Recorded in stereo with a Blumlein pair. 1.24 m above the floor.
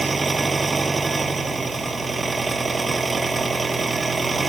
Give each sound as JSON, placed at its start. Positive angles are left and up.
{"t": 0.0, "sound": "an engine running", "azimuth_deg": -15}